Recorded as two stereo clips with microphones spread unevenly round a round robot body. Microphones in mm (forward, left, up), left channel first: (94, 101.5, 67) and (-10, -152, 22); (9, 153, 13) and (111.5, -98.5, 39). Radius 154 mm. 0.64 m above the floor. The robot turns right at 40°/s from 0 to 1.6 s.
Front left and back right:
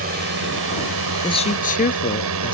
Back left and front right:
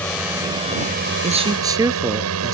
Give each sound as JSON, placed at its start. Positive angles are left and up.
{"t": 0.0, "sound": "a drone", "azimuth_deg": -165}
{"t": 1.2, "sound": "a man speaking", "azimuth_deg": -5}